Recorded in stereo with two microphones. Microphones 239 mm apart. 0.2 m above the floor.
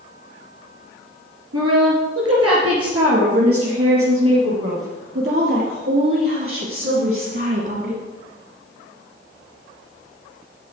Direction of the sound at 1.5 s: 70° right (ahead or behind).